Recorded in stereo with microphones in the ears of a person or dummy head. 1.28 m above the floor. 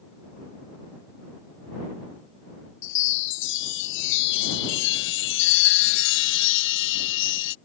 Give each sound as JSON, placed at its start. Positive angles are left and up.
{"t": 2.8, "sound": "a chime", "side_deg": 70}